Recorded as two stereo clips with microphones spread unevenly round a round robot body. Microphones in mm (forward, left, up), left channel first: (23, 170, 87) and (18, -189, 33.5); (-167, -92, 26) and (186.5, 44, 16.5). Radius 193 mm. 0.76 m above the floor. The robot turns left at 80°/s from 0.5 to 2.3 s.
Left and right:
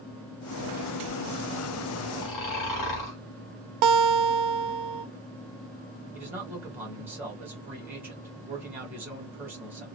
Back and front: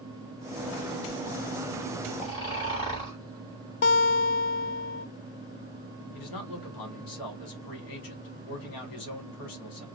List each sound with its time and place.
2.2 s snoring: 130° left, 1.6 m; by 3.2 s 125° left, 1.6 m
3.8 s a guitar: 95° right, 0.6 m
6.1 s a man speaking: 170° right, 1.7 m